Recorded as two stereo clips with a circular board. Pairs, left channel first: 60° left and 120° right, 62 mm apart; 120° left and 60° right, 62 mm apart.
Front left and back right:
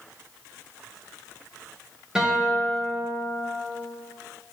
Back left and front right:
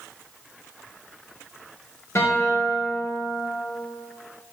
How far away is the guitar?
About 2.5 m.